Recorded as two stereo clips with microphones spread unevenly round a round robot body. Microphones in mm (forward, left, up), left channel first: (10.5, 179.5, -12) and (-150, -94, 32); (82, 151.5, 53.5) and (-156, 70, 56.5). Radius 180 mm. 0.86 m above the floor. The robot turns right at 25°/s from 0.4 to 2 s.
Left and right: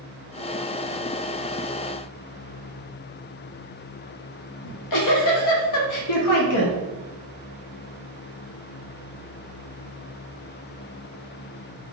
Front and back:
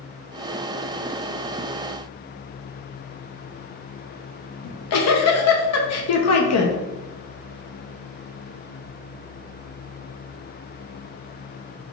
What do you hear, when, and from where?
4.6 s a giggle: 35° left, 0.8 m